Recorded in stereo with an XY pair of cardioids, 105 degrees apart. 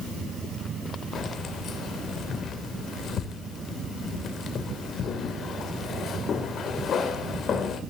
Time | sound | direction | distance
1.1 | keys jangling | 55° left | 2.5 m